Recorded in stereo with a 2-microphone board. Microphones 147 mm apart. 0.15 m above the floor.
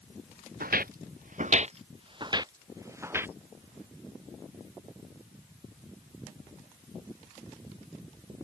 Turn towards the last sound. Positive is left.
turn(degrees=-15)  # may be behind; listen again after turning